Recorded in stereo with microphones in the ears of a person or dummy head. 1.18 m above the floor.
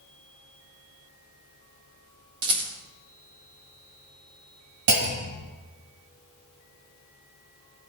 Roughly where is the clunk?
Right.